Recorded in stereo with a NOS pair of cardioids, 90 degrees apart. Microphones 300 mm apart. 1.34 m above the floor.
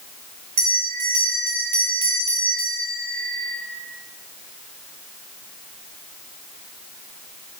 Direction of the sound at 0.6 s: 65° right.